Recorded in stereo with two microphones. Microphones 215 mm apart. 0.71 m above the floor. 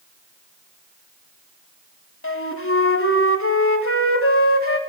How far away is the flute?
About 1.8 m.